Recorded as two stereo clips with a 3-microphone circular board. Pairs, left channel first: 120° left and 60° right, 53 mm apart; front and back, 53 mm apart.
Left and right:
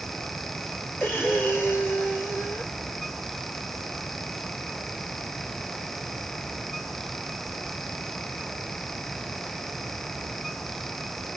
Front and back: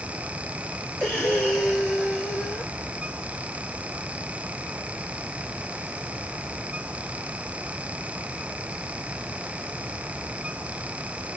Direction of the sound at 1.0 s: 70° left.